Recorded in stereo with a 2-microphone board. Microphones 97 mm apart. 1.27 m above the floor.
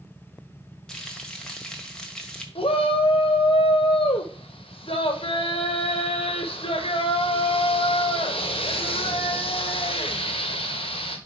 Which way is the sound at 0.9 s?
5° left (ahead or behind).